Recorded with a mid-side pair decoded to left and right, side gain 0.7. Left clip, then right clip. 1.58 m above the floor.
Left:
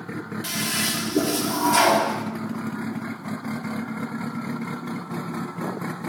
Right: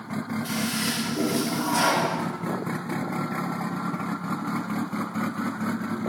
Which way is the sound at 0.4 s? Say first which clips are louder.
Left 4 dB; 55° left.